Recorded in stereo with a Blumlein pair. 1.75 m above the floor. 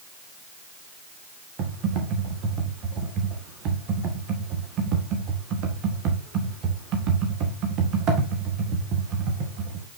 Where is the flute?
No flute in this recording.